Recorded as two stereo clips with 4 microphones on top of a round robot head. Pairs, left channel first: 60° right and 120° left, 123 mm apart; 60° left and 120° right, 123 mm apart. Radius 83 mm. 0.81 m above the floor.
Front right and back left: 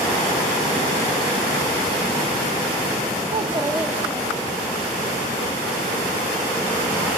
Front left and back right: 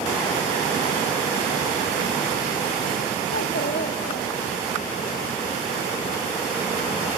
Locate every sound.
3.3 s a child speaking: 80° left, 0.8 m; by 4.8 s 5° left, 1.8 m